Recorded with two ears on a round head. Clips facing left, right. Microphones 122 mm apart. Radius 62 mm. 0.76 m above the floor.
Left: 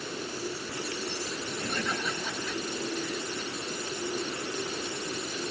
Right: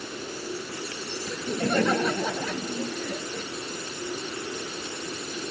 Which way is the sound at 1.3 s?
45° right (ahead or behind).